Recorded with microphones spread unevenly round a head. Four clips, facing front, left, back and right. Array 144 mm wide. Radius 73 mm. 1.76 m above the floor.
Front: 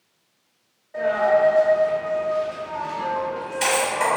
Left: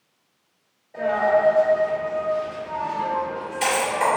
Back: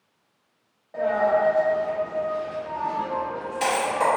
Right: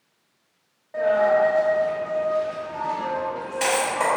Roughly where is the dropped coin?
Behind right.